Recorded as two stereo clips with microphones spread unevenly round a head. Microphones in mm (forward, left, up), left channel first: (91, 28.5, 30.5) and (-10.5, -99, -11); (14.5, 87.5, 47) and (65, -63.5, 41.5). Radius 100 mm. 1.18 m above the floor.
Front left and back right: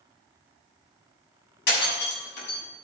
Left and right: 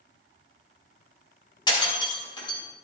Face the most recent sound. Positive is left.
turn(degrees=45)